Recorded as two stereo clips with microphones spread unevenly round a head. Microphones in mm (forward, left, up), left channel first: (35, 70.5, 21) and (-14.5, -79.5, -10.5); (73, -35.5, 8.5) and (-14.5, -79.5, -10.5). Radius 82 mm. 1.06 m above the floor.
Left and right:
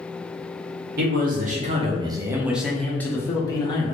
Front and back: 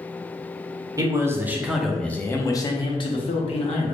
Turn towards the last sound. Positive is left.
turn(degrees=5)